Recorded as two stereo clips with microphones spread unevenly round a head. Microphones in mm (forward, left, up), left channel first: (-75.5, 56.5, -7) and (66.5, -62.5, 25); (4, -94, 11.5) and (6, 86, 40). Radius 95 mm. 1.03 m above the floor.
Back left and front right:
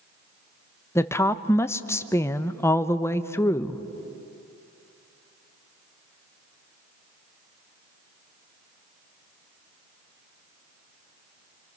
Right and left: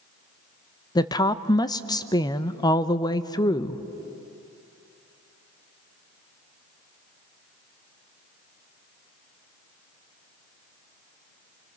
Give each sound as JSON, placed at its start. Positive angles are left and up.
{"t": 0.9, "sound": "a woman speaking", "azimuth_deg": -150, "distance_m": 0.8}